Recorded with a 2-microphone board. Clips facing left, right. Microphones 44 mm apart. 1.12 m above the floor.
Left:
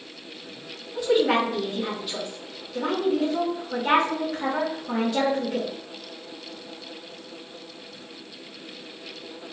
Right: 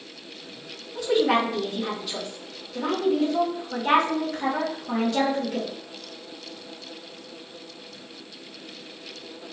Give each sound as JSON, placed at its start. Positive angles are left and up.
{"t": 0.9, "sound": "a woman speaking", "side_deg": 5, "distance_m": 1.3}